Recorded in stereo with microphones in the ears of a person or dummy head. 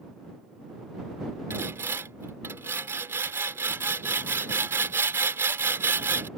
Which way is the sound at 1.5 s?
15° right (ahead or behind).